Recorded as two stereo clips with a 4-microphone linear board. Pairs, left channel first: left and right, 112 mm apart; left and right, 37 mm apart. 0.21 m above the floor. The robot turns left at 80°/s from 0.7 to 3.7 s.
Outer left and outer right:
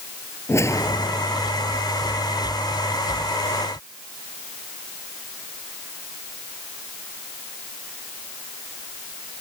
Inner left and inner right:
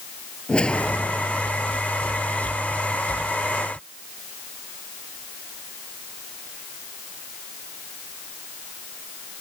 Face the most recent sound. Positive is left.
turn(degrees=-85)